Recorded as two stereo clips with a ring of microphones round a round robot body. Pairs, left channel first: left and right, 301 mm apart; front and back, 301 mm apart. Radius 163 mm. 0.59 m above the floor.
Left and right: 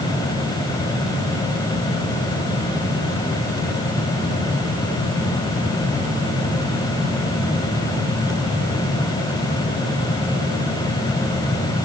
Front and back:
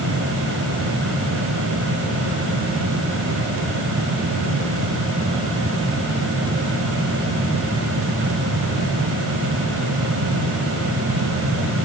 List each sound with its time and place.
Only background noise.